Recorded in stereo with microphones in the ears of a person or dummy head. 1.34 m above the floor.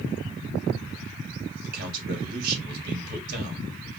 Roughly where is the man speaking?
Right.